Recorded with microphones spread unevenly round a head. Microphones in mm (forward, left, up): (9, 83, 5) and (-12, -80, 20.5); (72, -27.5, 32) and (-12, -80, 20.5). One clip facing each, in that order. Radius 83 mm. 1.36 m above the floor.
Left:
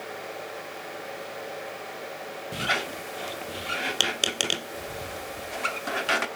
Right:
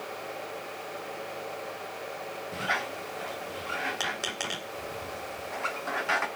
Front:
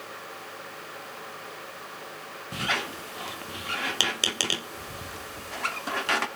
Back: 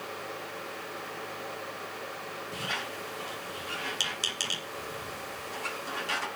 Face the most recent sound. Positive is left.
turn(degrees=30)